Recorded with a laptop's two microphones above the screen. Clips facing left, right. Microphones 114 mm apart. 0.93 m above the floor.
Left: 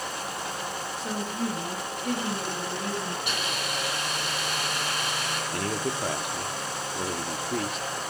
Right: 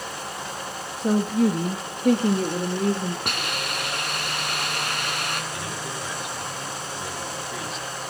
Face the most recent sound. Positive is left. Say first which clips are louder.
# left 3 dB
turn(degrees=50)  # may be behind; listen again after turning